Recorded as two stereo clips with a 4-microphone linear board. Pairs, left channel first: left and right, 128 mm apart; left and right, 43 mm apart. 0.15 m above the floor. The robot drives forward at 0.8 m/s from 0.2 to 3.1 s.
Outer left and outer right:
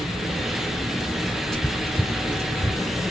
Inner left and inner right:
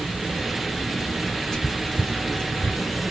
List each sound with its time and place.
1.5 s whispering: 5° left (ahead or behind), 3.5 m